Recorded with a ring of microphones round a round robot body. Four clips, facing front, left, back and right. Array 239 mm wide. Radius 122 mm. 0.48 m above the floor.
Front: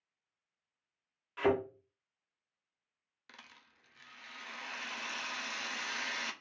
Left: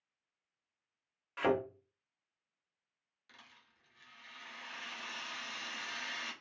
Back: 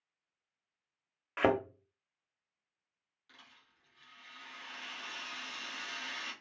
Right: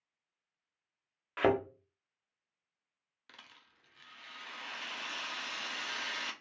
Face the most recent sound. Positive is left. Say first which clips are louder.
# right 3 dB, front 4 dB
turn(degrees=-40)